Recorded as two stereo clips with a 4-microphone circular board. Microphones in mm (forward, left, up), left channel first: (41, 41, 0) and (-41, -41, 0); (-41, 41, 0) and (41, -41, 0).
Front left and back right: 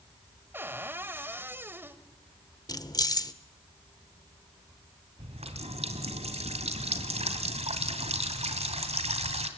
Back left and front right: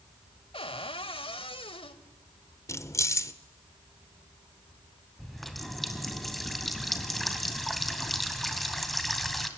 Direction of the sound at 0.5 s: 155° left.